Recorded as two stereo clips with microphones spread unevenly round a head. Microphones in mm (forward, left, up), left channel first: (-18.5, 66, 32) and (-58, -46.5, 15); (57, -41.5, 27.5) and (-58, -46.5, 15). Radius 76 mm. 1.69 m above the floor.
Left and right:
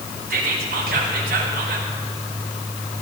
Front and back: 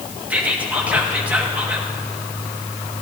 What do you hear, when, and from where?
0.3 s whispering: 100° right, 2.5 m